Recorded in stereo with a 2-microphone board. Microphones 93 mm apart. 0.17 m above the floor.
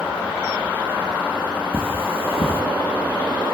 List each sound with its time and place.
1.7 s cutlery clinking: 85° left, 5 m